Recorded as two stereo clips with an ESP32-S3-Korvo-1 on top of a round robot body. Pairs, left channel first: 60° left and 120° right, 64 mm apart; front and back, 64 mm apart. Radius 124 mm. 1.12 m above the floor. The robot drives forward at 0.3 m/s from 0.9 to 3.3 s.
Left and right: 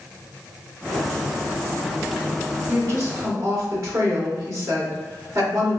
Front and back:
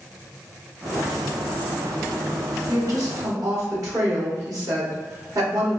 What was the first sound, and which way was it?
A woman speaking, 155° right.